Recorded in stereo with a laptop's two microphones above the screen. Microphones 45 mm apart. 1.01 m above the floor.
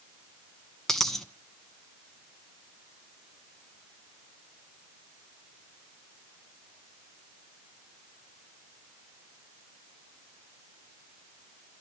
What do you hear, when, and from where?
0.9 s a dropped coin: 10° left (ahead or behind), 1.1 m